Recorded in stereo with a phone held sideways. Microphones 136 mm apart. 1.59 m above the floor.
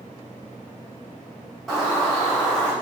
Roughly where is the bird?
Centre.